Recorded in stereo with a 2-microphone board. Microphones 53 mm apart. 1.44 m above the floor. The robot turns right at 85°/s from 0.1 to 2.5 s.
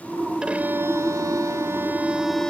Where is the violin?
165° right; by 2.5 s 10° left.